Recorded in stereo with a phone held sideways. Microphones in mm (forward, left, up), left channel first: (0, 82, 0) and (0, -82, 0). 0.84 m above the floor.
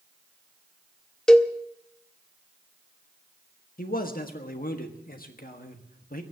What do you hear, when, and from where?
1.3 s a cowbell: 5° left (ahead or behind), 0.7 m
3.8 s a man speaking: 55° left (ahead or behind), 1.5 m